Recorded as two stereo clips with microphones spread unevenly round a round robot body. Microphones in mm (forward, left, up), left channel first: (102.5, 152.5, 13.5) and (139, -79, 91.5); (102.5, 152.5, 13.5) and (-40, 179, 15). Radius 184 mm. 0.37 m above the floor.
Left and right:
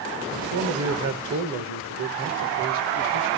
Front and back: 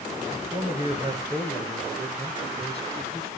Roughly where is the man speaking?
Behind right.